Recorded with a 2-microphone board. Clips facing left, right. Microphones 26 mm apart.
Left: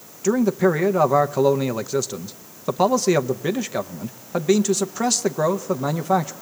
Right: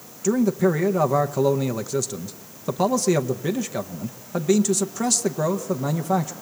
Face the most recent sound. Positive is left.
turn(degrees=20)  # may be behind; listen again after turning